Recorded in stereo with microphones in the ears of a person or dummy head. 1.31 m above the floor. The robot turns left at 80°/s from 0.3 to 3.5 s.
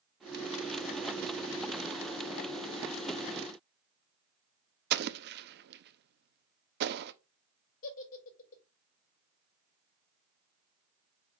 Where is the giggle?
50° left (ahead or behind), 2.5 m.